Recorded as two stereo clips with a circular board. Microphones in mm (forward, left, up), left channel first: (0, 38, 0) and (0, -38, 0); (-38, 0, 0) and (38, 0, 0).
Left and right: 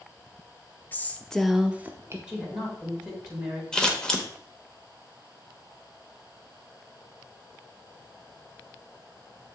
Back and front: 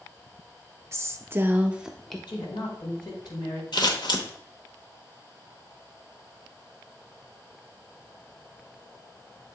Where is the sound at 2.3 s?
165° right, 3.5 m.